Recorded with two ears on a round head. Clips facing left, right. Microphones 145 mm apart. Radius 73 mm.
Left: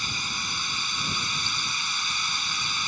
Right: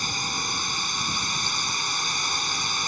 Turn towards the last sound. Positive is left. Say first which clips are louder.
# right 4 dB
turn(degrees=-40)  # may be behind; listen again after turning